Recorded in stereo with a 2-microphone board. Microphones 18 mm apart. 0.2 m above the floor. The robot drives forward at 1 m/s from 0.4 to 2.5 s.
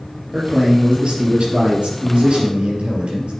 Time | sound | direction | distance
0.3 | a man speaking | 60° right (ahead or behind) | 4 m